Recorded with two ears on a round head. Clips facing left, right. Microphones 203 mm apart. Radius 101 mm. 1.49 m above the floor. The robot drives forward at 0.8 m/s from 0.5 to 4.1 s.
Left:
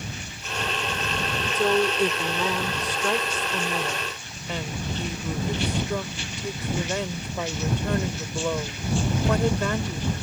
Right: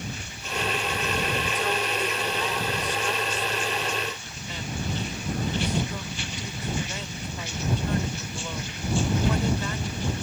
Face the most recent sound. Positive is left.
turn(degrees=50)  # may be behind; listen again after turning